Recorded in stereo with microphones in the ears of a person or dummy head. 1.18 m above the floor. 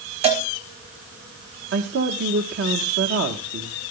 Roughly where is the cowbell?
Right.